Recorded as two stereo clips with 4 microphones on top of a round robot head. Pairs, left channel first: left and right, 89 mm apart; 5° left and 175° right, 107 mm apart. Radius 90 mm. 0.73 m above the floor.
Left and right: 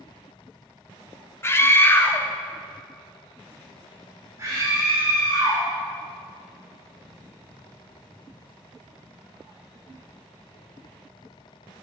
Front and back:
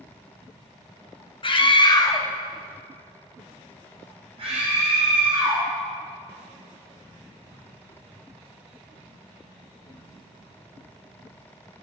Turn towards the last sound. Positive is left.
turn(degrees=-150)